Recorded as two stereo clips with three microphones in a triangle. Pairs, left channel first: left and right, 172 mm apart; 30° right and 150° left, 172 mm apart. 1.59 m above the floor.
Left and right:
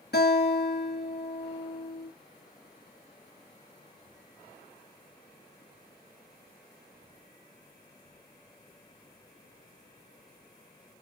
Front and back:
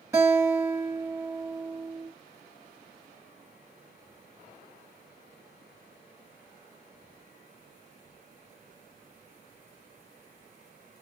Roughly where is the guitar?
Left.